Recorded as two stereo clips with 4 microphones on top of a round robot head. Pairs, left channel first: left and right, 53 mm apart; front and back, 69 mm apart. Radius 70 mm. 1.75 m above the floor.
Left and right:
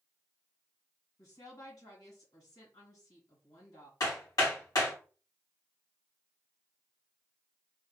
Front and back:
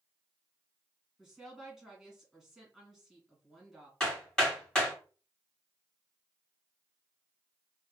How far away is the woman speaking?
About 2.5 m.